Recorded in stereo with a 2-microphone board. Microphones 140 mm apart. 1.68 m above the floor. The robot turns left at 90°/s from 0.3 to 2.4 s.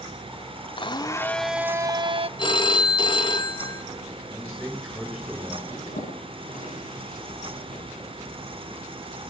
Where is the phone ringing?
35° left (ahead or behind), 1.6 m.